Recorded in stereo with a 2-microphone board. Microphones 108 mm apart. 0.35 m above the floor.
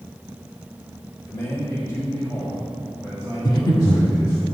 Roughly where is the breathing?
Left.